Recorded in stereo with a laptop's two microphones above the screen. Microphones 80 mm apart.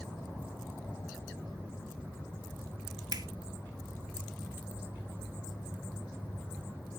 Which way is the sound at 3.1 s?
55° right (ahead or behind).